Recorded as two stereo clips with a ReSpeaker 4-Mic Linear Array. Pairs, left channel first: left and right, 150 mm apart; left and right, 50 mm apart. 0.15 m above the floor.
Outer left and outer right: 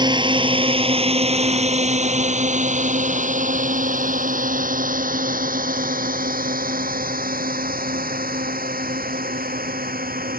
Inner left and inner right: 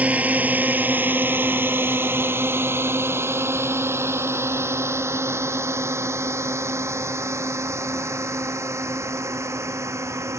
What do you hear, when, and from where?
0.0 s a drone: 30° right (ahead or behind); by 10.4 s 80° right